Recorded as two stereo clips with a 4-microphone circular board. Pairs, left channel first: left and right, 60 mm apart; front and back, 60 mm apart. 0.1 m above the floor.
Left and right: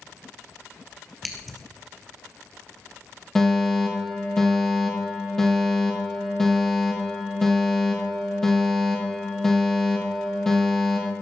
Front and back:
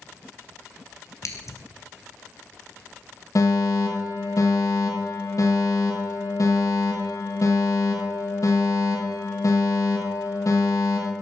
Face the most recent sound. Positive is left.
turn(degrees=10)